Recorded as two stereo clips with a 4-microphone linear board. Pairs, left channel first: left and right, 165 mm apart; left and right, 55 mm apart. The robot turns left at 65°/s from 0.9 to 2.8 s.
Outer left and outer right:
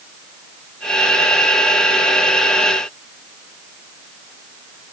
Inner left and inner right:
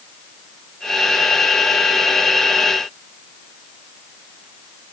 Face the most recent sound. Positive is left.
No sound to turn to.